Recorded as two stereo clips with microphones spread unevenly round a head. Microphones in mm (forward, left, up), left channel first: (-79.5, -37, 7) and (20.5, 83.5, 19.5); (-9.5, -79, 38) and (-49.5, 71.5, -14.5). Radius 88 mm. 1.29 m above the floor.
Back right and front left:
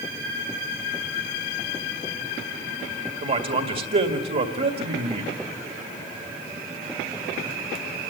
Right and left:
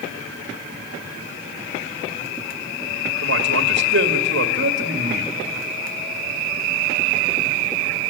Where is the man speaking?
90° left, 2.0 m.